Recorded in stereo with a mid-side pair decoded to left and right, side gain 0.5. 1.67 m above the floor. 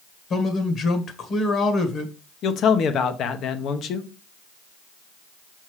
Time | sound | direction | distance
0.3 | a man speaking | 55° left | 1.7 m
2.4 | a man speaking | 60° left | 1.0 m